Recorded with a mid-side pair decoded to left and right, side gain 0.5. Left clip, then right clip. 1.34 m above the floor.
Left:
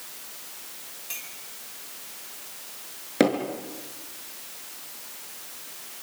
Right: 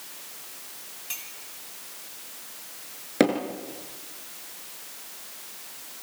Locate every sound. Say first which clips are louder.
1.1 s a clink: even; 20° right, 7.5 m
3.2 s hammering: even; 10° right, 6.5 m